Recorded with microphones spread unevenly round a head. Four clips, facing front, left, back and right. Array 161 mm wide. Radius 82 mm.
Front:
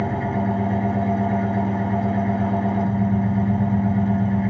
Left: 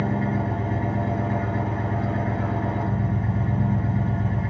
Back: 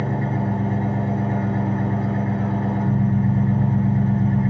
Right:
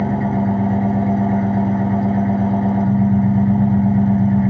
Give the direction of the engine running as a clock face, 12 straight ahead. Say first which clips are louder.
Right 6 dB, front 1 dB; 2 o'clock.